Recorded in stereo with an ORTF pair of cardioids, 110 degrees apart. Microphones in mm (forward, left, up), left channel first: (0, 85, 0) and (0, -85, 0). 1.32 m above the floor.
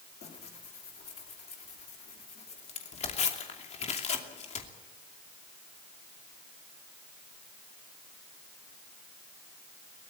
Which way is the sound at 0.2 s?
40° left.